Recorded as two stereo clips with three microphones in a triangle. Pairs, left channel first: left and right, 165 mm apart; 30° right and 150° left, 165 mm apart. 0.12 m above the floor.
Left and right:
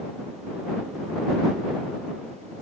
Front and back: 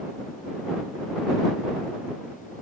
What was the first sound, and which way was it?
Only background noise.